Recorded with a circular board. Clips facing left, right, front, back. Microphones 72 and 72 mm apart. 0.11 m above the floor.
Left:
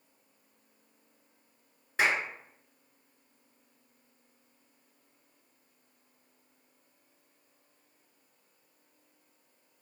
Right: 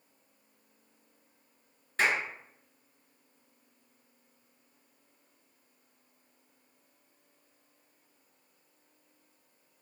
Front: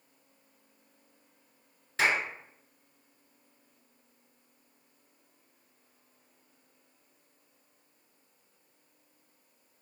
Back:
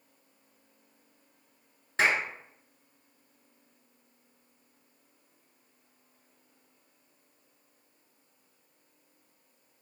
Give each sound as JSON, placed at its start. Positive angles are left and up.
{"t": 2.0, "sound": "a clap", "azimuth_deg": 160, "distance_m": 1.0}